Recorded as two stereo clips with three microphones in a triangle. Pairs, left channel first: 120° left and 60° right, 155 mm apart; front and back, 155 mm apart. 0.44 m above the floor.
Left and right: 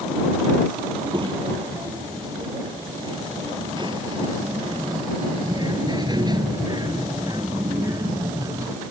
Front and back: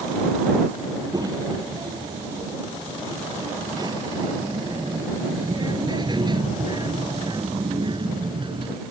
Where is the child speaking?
115° right; by 8.8 s 125° right.